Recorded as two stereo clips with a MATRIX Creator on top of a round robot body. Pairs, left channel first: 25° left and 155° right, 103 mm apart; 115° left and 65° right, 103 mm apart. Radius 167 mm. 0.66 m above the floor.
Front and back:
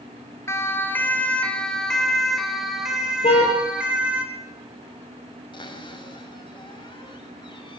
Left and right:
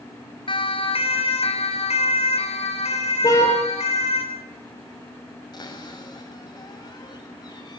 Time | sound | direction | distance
0.5 | a siren | 85° left | 4 m
3.2 | a car horn | 55° left | 8 m
5.5 | a cupboard door | 65° left | 6.5 m